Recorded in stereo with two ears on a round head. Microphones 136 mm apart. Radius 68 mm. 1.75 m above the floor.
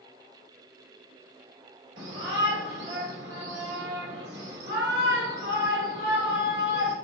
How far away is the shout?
About 1.9 m.